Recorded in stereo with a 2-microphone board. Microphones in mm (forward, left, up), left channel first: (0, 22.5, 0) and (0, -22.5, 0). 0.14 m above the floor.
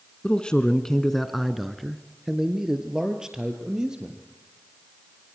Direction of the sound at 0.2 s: 25° left (ahead or behind).